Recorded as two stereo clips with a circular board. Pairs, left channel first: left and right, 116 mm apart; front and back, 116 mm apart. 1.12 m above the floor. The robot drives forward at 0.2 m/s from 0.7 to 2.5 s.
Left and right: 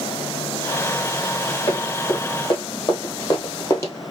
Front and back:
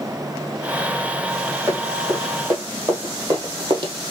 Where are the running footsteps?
115° left, 2.5 m; by 3.9 s 150° left, 1.8 m.